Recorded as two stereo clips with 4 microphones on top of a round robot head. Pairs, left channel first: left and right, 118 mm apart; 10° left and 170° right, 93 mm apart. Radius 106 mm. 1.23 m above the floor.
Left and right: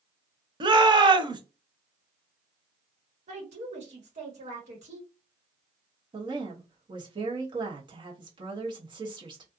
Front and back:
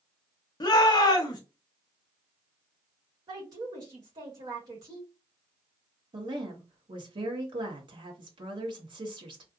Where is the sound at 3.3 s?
120° right, 1.3 m.